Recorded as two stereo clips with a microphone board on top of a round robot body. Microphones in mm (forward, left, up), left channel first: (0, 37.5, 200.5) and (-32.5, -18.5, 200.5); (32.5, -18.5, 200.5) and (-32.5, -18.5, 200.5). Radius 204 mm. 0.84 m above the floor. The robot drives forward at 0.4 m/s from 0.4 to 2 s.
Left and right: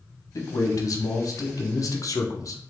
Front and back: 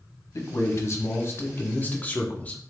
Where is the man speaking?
30° left, 1.3 m; by 2.6 s 60° left, 0.9 m.